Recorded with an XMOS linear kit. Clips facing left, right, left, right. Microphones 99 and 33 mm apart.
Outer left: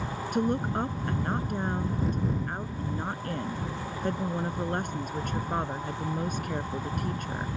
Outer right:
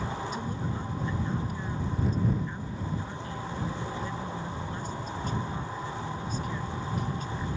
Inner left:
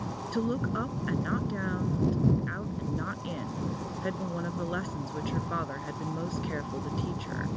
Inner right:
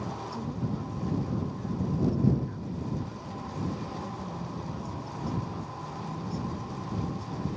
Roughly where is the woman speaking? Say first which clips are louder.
Outer left 7 dB, inner left 8 dB; left.